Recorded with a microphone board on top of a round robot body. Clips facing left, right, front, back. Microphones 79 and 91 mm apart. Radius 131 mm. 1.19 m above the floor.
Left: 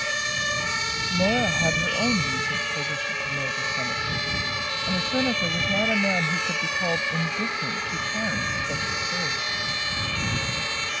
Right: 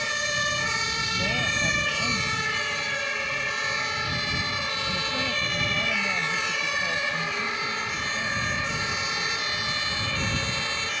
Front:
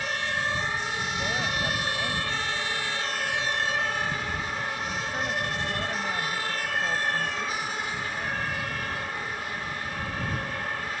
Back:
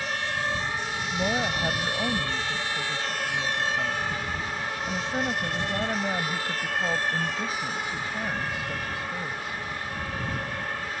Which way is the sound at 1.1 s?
110° left.